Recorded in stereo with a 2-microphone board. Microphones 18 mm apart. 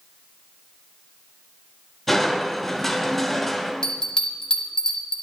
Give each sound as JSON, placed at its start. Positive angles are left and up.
{"t": 2.1, "sound": "crushing", "side_deg": 5, "distance_m": 1.9}
{"t": 3.8, "sound": "a bell", "side_deg": 40, "distance_m": 1.2}